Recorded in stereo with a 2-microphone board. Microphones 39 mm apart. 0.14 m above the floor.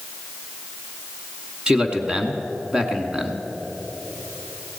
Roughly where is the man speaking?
Right.